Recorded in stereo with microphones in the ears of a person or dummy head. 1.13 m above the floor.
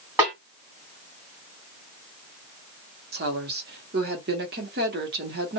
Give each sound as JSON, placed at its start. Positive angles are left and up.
{"t": 0.2, "sound": "a snare drum", "side_deg": -10, "distance_m": 1.6}
{"t": 3.1, "sound": "a woman speaking", "side_deg": -45, "distance_m": 0.9}